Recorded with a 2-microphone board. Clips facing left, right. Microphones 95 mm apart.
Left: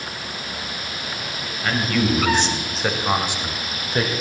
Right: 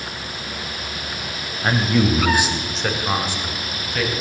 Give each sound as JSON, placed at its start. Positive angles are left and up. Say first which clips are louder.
{"t": 1.6, "sound": "a man speaking", "louder": "right 3 dB", "side_deg": -30, "distance_m": 1.0}